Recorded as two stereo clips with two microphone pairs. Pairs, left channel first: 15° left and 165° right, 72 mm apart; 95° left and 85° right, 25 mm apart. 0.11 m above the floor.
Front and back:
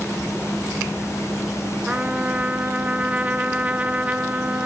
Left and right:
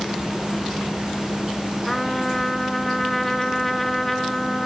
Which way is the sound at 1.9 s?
160° left.